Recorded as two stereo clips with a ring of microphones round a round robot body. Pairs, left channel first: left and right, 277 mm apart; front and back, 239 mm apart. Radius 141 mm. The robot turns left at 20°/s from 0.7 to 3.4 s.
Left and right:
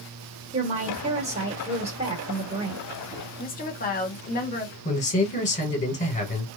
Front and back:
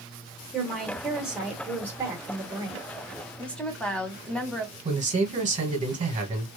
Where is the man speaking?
140° left, 1.3 m.